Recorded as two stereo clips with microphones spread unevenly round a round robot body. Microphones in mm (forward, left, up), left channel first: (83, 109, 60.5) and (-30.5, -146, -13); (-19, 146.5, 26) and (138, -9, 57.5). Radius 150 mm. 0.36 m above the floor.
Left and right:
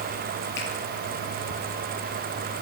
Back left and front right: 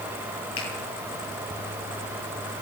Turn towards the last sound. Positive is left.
turn(degrees=120)